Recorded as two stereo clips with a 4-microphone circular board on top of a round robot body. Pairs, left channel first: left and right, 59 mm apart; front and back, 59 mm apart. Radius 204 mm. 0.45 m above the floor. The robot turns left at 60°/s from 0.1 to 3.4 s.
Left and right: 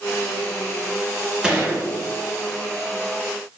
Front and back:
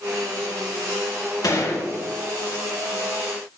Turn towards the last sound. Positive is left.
turn(degrees=-135)